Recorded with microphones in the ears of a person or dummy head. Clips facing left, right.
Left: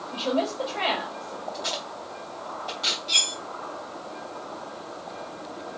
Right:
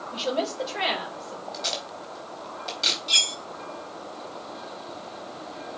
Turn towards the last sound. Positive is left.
turn(degrees=-15)  # may be behind; listen again after turning